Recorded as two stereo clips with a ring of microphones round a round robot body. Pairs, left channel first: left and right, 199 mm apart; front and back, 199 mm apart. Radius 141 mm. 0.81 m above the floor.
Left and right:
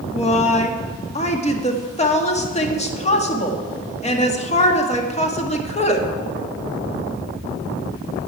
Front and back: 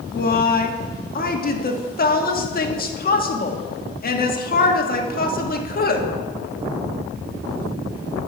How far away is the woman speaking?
About 1.7 m.